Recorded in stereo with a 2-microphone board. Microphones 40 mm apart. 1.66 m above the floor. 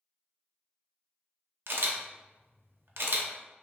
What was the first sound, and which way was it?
A camera shutter, 65° right (ahead or behind).